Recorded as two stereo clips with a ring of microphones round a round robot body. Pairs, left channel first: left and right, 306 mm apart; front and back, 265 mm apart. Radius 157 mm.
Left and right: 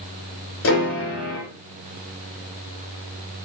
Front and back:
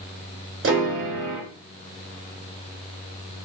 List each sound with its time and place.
0.6 s a piano: 140° left, 2 m